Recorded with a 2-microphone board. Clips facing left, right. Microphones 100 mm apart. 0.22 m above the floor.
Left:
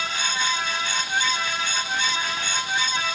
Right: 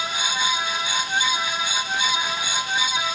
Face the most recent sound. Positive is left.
No sound to turn to.